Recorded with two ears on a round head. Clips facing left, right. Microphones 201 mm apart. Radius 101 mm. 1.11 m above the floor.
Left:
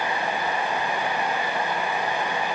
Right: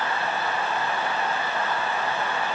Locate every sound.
Only background noise.